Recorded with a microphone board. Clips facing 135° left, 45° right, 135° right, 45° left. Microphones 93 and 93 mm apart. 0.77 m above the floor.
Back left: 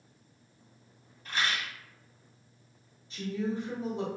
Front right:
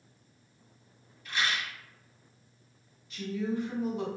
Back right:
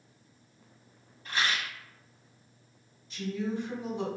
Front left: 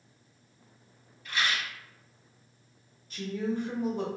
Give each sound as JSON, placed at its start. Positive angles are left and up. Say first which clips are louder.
{"t": 1.2, "sound": "a rattle", "louder": "even, even", "azimuth_deg": 180, "distance_m": 0.9}
{"t": 3.1, "sound": "a woman speaking", "louder": "even, front left 1 dB", "azimuth_deg": 80, "distance_m": 1.4}